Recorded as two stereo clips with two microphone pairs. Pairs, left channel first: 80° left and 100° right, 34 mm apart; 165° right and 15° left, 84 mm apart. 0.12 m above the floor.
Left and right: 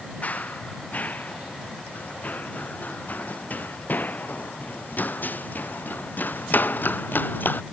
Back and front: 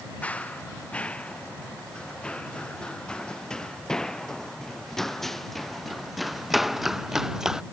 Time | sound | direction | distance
0.2 | running footsteps | 120° left | ?